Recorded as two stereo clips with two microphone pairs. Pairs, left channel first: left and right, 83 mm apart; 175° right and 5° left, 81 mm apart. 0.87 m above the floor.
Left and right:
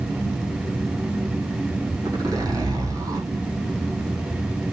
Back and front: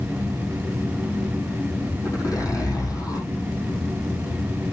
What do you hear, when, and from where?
2.0 s a zipper: 130° right, 6 m